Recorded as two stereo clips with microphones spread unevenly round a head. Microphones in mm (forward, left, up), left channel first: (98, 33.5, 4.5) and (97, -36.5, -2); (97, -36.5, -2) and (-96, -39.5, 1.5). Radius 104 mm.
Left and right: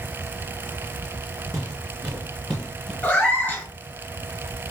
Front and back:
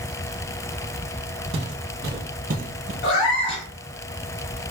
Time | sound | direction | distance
1.5 | footsteps | straight behind | 2 m
3.0 | a cat meowing | 25° left | 2.5 m